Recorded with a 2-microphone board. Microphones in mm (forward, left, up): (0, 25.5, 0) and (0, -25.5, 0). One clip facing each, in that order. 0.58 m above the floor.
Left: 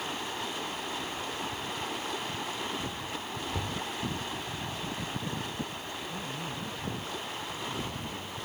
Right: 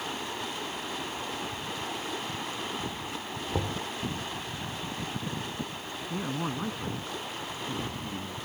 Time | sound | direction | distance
3.5 | knocking | 35° right (ahead or behind) | ?
6.1 | a man speaking | 50° right (ahead or behind) | ?